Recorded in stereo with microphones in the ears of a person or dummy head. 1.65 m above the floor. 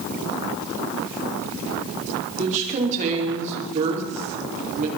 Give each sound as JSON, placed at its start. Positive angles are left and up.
{"t": 2.4, "sound": "a woman speaking", "side_deg": -40, "distance_m": 5.0}